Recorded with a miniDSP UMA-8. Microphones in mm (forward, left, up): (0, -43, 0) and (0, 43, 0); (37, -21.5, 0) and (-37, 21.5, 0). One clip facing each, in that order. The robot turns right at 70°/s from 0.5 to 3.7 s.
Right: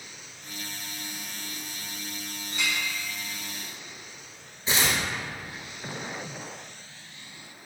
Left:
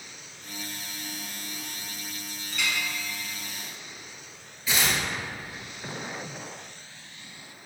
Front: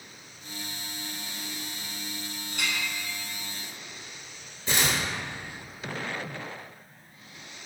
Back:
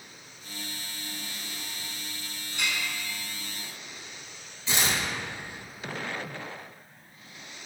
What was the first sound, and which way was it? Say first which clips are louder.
A clink: even, even; 30° right.